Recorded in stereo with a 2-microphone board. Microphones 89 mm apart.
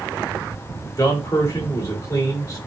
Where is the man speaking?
40° left (ahead or behind), 3.5 m.